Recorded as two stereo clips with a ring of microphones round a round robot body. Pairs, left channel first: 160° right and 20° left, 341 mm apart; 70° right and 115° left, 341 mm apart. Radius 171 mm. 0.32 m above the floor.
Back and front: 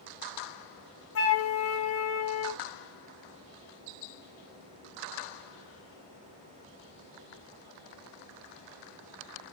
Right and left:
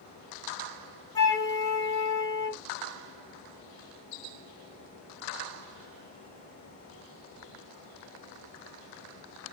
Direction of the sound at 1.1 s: 140° right.